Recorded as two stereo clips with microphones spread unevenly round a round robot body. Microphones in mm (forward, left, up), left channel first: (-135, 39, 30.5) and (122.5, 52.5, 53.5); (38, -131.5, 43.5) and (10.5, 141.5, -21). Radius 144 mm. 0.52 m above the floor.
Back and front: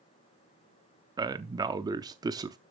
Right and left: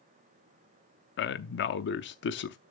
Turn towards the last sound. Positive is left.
turn(degrees=-65)